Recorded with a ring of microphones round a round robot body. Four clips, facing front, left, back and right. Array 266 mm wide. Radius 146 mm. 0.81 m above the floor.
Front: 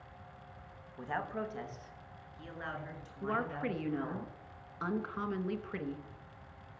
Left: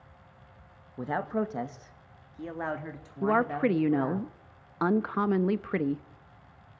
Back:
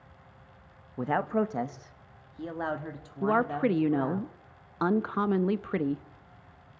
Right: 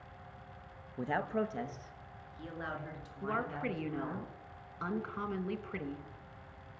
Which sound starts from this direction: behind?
A man speaking, at 1.0 s.